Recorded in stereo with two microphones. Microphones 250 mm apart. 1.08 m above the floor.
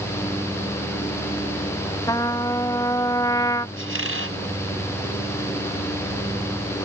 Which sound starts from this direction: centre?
A trumpet, at 2.1 s.